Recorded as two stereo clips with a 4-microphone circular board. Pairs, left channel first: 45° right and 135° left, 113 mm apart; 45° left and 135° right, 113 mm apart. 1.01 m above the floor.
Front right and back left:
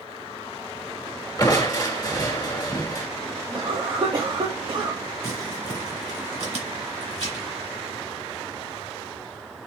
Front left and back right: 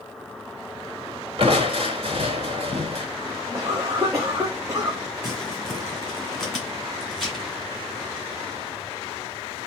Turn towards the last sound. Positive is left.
turn(degrees=135)